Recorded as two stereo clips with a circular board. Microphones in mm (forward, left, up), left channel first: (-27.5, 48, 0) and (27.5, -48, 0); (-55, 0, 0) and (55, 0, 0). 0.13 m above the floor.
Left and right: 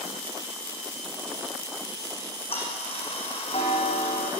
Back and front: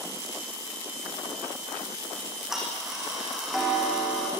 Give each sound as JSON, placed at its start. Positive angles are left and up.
{"t": 2.2, "sound": "ticking", "azimuth_deg": 85, "distance_m": 6.0}